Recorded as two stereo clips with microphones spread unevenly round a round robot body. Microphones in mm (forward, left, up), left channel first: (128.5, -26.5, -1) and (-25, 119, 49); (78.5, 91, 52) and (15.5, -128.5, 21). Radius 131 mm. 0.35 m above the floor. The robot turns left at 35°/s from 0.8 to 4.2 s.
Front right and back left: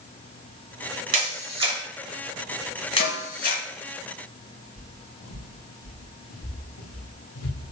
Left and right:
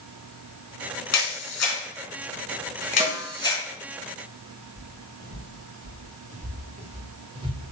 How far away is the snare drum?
About 2.0 m.